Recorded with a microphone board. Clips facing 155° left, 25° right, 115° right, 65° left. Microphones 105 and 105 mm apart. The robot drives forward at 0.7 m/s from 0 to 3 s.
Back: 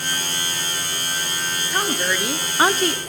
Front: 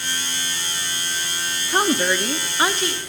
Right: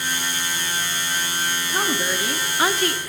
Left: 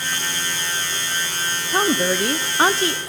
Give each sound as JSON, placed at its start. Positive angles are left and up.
{"t": 1.7, "sound": "a woman speaking", "azimuth_deg": 35, "distance_m": 0.7}